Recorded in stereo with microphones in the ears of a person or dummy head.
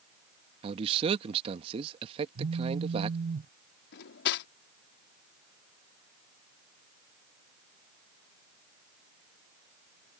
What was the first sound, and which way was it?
A man speaking, 30° right (ahead or behind).